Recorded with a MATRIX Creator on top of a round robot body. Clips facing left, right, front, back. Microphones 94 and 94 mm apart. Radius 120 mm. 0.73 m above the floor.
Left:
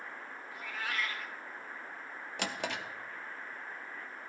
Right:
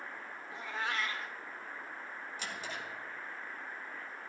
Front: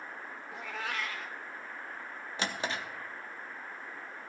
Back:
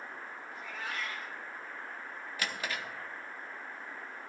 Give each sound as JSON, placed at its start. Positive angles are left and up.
{"t": 0.5, "sound": "a cat meowing", "azimuth_deg": -25, "distance_m": 0.6}
{"t": 2.4, "sound": "a drawer", "azimuth_deg": 65, "distance_m": 0.8}